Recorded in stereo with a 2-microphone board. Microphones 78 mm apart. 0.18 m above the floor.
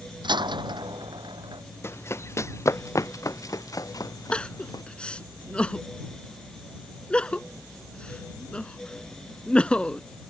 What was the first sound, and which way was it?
A door slam, 80° right.